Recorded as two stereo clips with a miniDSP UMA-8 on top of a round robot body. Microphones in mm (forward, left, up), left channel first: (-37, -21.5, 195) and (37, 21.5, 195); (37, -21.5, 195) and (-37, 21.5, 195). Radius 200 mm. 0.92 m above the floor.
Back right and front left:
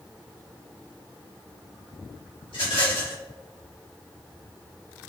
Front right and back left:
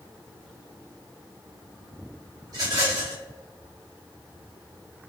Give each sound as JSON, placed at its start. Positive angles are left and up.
{"t": 2.5, "sound": "a rattle", "azimuth_deg": -165, "distance_m": 2.0}